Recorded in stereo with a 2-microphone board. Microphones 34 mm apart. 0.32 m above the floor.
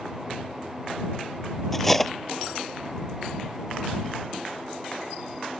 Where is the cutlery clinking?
5° left (ahead or behind).